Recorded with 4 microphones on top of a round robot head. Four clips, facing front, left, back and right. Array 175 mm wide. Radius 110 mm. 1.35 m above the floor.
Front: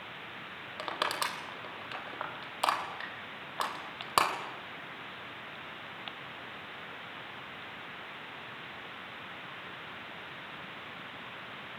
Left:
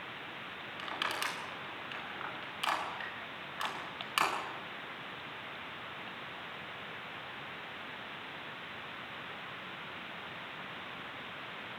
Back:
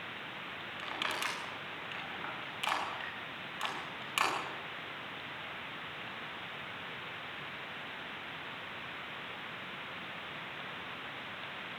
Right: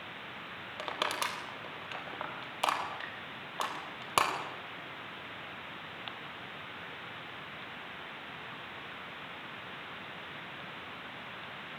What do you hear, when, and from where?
0.8 s crushing: 45° right, 3.5 m